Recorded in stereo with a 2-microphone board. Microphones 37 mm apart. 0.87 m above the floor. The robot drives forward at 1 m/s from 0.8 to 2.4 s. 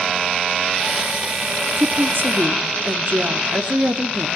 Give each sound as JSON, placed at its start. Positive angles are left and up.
{"t": 1.8, "sound": "a woman speaking", "side_deg": -65, "distance_m": 2.0}